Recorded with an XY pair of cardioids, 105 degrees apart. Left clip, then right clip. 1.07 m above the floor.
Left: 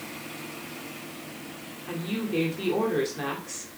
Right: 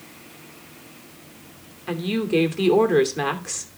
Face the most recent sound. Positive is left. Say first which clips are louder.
# right 8 dB
turn(degrees=-60)